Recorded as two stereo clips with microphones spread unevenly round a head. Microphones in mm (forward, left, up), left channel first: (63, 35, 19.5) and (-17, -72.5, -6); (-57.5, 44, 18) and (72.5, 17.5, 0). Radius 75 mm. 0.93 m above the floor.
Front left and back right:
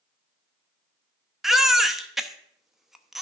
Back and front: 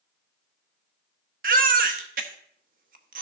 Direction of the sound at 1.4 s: 40° right.